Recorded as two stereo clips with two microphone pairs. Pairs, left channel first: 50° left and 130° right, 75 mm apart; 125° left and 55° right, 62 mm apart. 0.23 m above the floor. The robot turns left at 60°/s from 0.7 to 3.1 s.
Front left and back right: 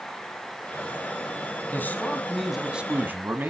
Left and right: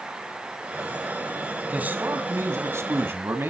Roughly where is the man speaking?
Ahead.